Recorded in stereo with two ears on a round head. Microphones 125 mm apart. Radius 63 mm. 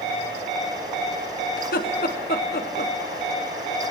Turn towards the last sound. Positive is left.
turn(degrees=75)  # may be behind; listen again after turning